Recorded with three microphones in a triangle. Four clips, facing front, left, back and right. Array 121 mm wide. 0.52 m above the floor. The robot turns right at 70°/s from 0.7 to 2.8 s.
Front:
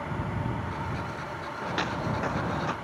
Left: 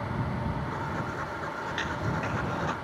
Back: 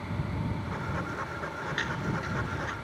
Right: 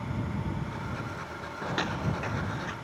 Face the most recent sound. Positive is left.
turn(degrees=40)